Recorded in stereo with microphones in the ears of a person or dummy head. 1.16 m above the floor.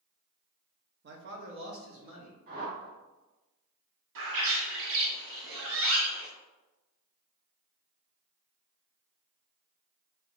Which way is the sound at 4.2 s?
65° right (ahead or behind).